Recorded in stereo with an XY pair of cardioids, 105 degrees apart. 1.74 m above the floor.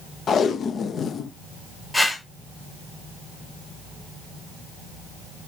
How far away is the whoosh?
About 5.5 m.